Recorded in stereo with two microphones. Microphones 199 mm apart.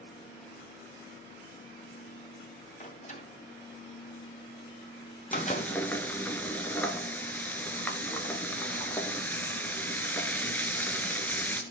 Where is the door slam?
35° left (ahead or behind), 2 m.